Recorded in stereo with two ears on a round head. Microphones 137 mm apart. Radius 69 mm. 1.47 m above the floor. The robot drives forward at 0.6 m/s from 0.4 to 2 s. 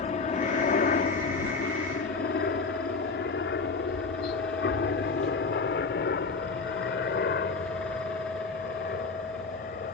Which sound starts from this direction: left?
A helicopter, at 0.0 s.